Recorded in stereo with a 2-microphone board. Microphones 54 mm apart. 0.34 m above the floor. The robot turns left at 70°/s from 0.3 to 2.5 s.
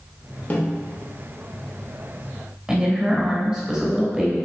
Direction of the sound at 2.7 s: 10° right (ahead or behind).